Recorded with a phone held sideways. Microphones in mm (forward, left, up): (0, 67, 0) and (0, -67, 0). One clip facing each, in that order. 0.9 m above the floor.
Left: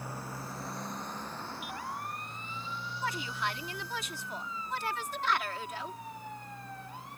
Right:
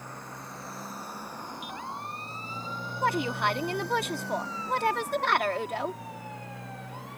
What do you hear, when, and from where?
0.0 s a motorcycle: 5° left (ahead or behind); by 7.2 s 80° right
3.0 s a woman speaking: 60° right (ahead or behind)